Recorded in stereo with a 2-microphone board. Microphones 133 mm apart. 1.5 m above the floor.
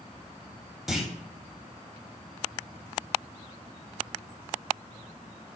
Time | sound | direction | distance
0.9 | a clunk | centre (ahead or behind) | 0.5 m